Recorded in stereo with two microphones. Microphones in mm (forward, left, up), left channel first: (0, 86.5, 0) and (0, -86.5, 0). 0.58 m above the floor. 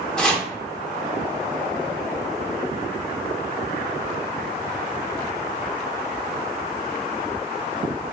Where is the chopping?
5° left (ahead or behind), 0.7 m.